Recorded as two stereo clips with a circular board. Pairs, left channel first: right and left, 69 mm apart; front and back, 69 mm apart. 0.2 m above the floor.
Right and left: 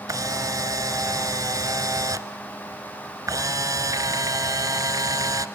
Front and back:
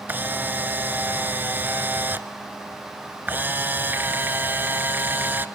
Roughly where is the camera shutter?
Behind left.